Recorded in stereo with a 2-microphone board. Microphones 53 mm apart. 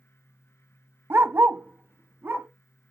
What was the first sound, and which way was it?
A dog barking, 50° right (ahead or behind).